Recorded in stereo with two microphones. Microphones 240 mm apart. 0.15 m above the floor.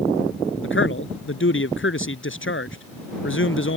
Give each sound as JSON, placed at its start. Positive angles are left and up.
{"t": 0.6, "sound": "a man speaking", "side_deg": 60}